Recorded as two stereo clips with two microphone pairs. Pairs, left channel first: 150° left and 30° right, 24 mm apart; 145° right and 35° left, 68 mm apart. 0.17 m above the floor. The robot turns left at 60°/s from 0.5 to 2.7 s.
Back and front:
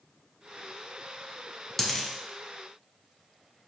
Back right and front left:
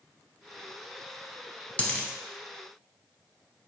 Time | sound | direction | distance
1.8 | a dropped coin | 150° right | 0.6 m